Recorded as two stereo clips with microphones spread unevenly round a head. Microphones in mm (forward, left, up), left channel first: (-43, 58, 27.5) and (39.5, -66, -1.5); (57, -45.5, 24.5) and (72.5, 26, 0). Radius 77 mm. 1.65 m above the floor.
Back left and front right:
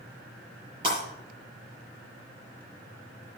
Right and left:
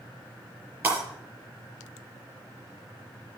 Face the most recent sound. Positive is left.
turn(degrees=5)